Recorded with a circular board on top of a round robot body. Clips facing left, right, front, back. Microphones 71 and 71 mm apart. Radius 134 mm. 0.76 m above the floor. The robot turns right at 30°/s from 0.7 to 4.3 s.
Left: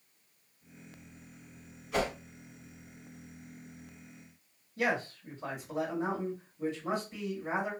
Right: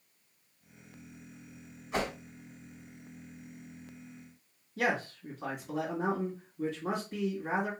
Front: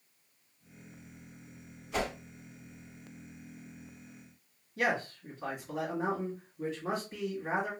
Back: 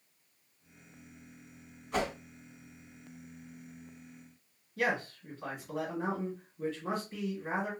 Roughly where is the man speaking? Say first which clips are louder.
Even, front 1 dB; right.